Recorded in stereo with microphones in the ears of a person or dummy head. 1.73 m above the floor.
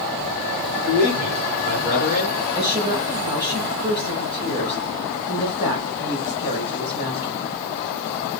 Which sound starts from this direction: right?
A man speaking, at 0.9 s.